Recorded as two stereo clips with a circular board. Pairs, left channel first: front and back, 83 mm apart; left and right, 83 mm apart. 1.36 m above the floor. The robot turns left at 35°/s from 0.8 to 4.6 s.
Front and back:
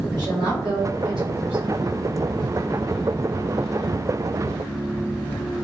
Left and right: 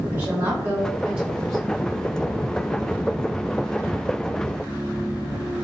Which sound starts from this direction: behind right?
A woman speaking, at 0.1 s.